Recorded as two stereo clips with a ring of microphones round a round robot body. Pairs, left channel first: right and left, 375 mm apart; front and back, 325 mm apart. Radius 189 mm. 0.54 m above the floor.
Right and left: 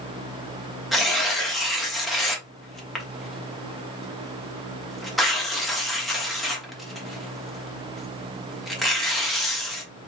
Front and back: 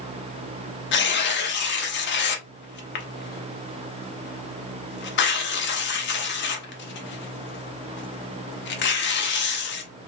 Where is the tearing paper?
Straight ahead, 0.9 m.